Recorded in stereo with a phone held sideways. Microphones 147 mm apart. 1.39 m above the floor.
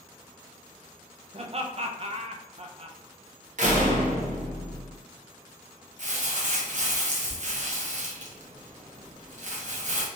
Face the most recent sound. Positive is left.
turn(degrees=-55)  # may be behind; listen again after turning